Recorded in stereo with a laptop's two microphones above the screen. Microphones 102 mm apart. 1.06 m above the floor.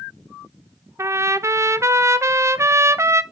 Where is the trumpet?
30° right (ahead or behind), 0.5 m.